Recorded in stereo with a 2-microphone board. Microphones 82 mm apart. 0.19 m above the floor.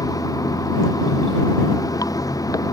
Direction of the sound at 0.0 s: 45° left (ahead or behind).